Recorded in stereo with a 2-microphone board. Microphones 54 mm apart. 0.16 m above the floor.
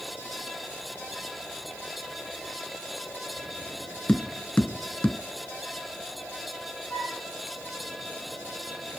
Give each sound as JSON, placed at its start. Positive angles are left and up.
{"t": 4.1, "sound": "tapping", "side_deg": 25, "distance_m": 0.8}
{"t": 6.9, "sound": "a flute", "side_deg": 35, "distance_m": 4.5}